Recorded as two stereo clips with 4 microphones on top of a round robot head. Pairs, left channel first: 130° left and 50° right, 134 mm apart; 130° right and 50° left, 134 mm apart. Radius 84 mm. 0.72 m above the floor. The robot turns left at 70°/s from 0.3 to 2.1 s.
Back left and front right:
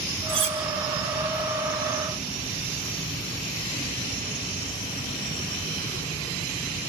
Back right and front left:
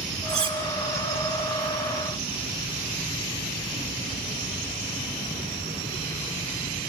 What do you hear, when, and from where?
0.3 s cutlery clinking: 5° left, 6.5 m; by 0.6 s 15° right, 6.5 m